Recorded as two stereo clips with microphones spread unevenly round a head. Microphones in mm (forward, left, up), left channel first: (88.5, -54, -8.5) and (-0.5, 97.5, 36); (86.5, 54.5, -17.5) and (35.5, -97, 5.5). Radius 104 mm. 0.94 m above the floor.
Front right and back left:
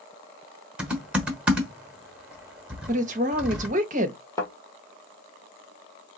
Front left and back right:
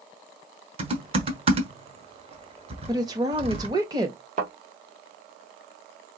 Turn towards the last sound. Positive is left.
turn(degrees=-140)